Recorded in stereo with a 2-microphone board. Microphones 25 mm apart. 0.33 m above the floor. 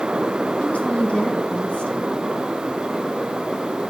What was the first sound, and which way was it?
A woman speaking, 65° left (ahead or behind).